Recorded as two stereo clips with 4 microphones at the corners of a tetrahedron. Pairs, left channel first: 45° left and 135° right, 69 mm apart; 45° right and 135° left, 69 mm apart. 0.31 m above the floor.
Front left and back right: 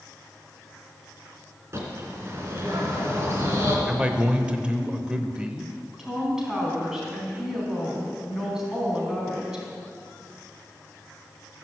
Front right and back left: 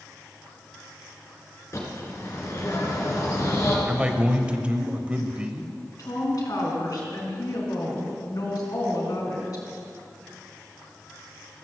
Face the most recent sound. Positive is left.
turn(degrees=-55)